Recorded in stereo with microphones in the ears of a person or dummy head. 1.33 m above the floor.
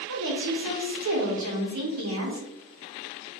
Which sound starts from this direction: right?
A woman speaking, at 0.1 s.